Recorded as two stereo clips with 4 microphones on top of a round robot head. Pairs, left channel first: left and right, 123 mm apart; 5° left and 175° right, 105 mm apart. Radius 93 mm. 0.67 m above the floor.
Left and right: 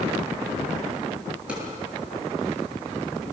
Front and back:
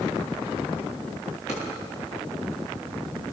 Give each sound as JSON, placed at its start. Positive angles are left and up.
{"t": 1.5, "sound": "a drawer", "azimuth_deg": -10, "distance_m": 8.0}